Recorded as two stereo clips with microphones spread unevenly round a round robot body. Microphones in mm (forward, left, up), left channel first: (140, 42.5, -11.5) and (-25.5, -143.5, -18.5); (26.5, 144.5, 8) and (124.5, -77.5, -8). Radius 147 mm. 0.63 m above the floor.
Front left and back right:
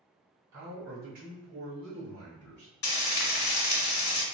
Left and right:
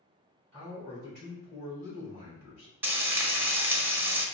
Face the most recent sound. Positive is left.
turn(degrees=15)